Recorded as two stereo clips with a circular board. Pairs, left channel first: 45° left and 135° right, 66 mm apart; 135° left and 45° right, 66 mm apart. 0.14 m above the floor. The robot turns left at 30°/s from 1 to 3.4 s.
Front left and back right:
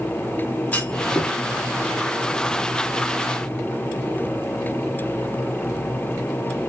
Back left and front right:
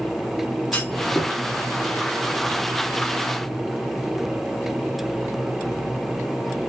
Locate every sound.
0.7 s a clunk: 90° left, 1.9 m; by 1.3 s 80° left, 1.9 m